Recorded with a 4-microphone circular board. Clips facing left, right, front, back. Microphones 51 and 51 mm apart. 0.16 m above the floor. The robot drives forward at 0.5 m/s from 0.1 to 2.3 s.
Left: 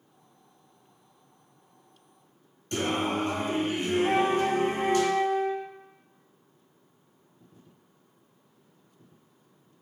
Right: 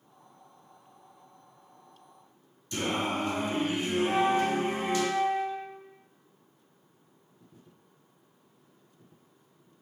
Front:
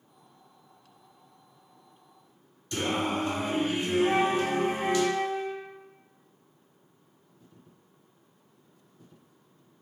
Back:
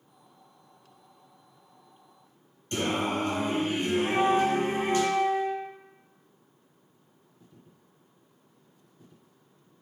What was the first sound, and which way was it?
Singing, 125° left.